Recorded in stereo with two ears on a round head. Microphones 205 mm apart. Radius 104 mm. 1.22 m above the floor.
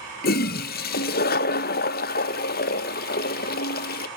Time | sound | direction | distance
0.2 | a toilet flushing | 40° left (ahead or behind) | 0.5 m